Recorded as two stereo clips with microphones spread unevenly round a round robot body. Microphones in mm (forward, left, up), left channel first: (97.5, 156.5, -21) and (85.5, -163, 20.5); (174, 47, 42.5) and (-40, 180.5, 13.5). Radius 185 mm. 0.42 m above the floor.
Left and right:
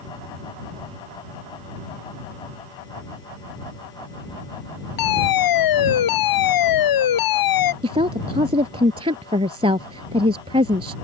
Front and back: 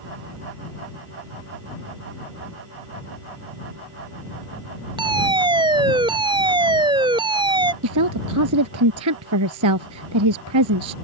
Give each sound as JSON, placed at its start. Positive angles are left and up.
{"t": 5.0, "sound": "a fire alarm", "azimuth_deg": 75}
{"t": 7.8, "sound": "a woman speaking", "azimuth_deg": -170}